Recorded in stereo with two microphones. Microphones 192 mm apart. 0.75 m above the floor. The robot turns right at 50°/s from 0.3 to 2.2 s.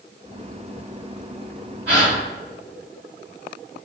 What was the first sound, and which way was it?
A gasp, 85° right.